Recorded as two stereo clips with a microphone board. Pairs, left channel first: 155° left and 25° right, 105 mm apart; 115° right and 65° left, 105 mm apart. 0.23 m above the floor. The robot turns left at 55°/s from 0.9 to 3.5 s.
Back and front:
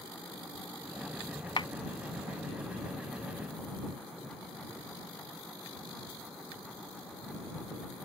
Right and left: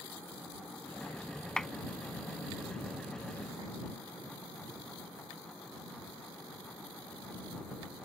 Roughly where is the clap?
Behind.